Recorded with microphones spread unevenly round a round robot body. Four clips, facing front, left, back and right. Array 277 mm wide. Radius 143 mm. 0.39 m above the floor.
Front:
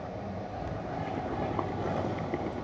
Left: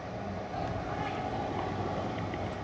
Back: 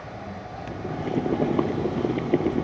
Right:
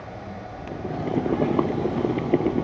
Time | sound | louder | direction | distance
0.7 | boiling | right 7 dB, back 9 dB | 130° right | ?